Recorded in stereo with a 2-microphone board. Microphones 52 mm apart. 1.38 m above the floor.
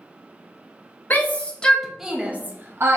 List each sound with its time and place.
1.1 s a shout: 35° left (ahead or behind), 0.8 m; by 3.0 s 55° right (ahead or behind), 0.7 m